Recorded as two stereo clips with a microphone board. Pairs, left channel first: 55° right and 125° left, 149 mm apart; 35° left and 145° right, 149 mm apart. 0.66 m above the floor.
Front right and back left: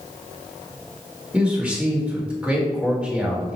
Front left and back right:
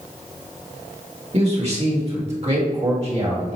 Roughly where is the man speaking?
Behind right.